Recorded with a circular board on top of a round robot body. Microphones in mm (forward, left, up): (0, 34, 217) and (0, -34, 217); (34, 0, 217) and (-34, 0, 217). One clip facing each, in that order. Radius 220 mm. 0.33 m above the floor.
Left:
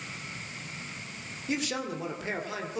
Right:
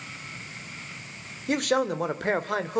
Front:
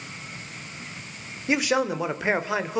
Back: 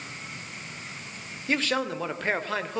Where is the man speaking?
75° right, 2 m.